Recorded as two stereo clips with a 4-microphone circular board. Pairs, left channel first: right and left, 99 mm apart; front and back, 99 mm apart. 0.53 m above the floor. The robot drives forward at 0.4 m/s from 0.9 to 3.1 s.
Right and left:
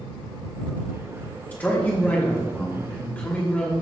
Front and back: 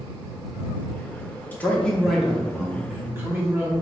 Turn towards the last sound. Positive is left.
turn(degrees=-145)